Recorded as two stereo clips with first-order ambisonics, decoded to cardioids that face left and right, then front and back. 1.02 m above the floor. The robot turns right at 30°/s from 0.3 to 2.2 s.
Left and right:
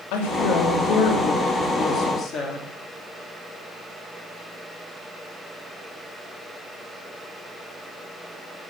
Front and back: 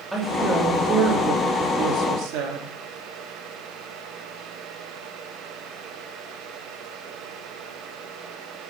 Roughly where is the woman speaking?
Left.